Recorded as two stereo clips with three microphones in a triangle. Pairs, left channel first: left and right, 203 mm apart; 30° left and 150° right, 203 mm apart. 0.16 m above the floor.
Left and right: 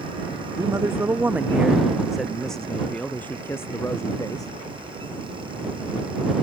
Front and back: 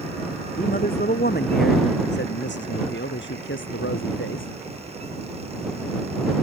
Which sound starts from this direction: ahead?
A man speaking, at 0.6 s.